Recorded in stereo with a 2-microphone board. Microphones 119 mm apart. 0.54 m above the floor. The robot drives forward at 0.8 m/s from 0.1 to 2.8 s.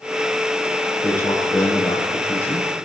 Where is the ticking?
No ticking in this recording.